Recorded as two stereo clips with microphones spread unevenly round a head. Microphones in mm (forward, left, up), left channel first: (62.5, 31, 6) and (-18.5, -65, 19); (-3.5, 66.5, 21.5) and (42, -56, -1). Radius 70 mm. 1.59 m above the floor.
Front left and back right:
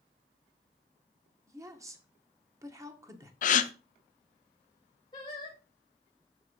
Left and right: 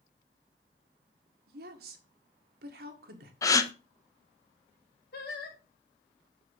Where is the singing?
115° left, 2 m.